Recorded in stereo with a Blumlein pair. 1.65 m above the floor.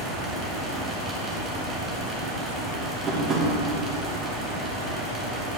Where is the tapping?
25° right, 2.5 m.